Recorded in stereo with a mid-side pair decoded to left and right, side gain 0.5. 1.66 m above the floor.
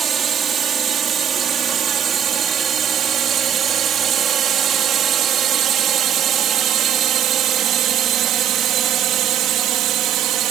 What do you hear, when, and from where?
0.0 s a drone: 45° right; by 10.5 s 70° right